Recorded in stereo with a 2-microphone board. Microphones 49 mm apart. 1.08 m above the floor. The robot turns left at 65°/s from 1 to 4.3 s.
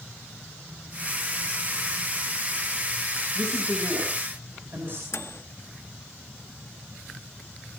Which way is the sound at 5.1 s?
60° left (ahead or behind).